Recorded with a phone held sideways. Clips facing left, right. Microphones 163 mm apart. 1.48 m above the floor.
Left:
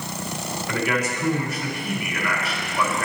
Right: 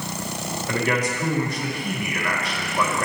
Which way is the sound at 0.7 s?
35° right (ahead or behind).